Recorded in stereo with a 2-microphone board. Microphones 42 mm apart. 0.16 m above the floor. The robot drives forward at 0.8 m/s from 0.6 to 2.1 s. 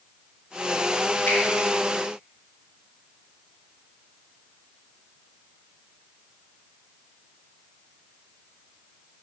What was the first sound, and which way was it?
A finger snap, 55° left (ahead or behind).